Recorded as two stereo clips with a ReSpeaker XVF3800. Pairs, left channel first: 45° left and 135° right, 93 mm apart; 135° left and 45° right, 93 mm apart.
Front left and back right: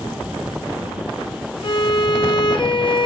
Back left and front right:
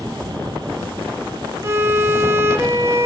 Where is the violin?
15° left, 0.5 m.